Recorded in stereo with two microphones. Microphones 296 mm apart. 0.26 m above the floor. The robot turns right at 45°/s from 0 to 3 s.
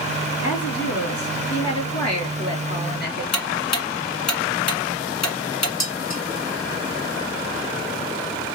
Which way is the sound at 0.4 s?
30° left.